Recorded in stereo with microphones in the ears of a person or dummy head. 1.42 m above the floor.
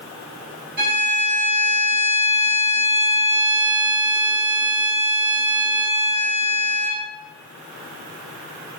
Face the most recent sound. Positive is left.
turn(degrees=-50)  # may be behind; listen again after turning